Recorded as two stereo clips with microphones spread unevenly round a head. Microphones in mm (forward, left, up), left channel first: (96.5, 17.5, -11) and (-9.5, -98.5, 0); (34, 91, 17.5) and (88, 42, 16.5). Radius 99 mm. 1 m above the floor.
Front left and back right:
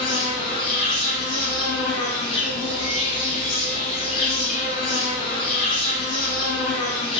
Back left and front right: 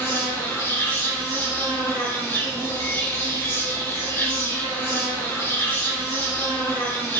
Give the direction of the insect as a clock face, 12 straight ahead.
9 o'clock.